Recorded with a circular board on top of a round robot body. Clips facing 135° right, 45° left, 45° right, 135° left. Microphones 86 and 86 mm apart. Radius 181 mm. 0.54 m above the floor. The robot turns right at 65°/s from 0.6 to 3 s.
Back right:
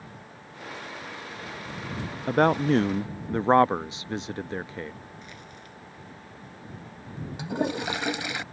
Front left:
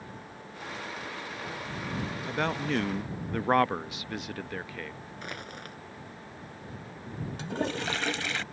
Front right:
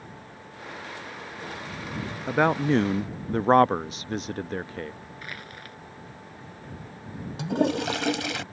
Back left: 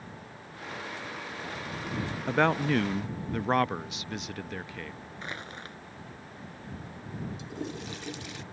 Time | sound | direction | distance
2.3 | a man speaking | 130° right | ?
5.2 | crushing | 70° left | ?
7.4 | a toilet flushing | 60° right | ?